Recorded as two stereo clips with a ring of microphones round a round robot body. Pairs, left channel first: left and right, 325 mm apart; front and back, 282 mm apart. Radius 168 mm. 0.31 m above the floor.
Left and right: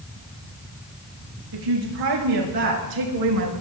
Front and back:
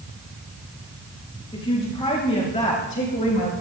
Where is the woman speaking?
75° right, 6.5 m; by 3.5 s 65° right, 4.5 m.